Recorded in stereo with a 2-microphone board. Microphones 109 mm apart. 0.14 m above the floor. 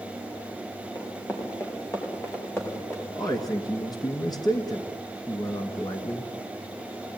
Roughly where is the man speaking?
Left.